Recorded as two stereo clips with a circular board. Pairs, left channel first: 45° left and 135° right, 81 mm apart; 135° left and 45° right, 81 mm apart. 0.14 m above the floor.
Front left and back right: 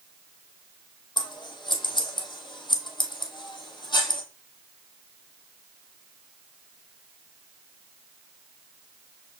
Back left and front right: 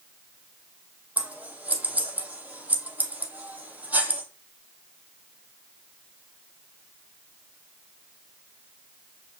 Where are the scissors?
25° left, 0.8 m.